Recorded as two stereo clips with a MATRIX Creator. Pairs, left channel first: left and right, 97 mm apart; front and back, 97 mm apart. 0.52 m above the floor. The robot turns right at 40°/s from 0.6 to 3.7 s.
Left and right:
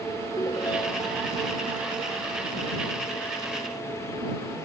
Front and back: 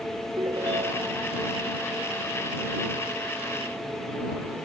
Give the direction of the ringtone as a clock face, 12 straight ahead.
7 o'clock.